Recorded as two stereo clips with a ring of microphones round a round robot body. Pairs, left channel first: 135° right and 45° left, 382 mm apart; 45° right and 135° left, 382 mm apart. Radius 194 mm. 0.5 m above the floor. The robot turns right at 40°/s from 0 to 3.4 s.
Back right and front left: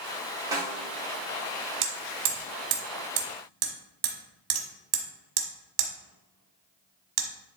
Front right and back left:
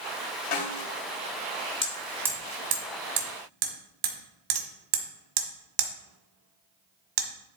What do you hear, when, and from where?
0.5 s a snare drum: 35° right, 2 m; by 0.8 s 25° right, 2 m
1.8 s hammering: 30° left, 1.6 m; by 7.3 s 95° left, 1.6 m